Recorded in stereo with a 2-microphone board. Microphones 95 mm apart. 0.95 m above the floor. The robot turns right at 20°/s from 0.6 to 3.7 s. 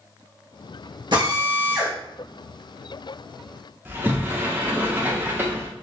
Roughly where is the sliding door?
Right.